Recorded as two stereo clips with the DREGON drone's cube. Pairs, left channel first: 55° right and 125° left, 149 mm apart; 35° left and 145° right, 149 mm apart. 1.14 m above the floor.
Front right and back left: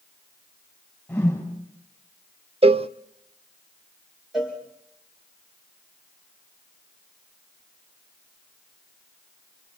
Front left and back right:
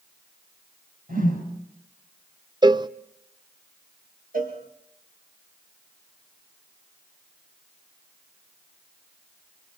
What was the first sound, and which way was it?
A whoosh, 140° right.